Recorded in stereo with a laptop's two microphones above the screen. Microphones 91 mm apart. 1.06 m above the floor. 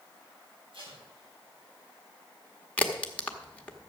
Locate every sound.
0.7 s tape being pulled: 75° right (ahead or behind), 7 m
2.8 s a crack: 15° left (ahead or behind), 1.0 m